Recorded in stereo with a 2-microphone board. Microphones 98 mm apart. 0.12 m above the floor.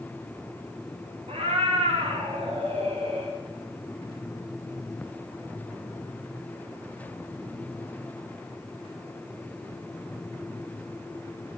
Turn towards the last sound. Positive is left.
turn(degrees=-85)